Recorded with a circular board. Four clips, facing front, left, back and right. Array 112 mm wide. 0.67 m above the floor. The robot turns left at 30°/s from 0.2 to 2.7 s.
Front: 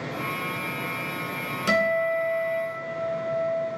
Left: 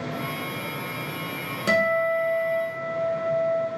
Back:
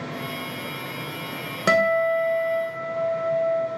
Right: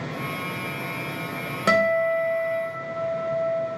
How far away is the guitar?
About 0.6 m.